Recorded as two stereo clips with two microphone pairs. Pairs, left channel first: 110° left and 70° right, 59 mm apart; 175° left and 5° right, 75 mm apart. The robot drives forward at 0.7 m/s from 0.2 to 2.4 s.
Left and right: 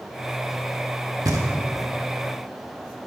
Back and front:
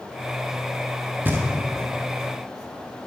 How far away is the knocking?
About 1.2 m.